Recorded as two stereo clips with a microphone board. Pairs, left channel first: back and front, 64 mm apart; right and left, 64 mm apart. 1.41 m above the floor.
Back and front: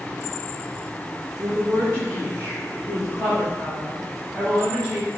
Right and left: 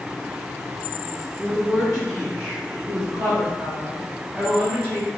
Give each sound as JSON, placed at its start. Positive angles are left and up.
{"t": 1.4, "sound": "a woman speaking", "azimuth_deg": 30, "distance_m": 0.9}